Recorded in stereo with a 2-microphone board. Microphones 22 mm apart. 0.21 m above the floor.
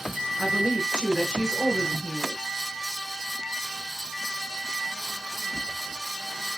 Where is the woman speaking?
40° right (ahead or behind), 2.5 m.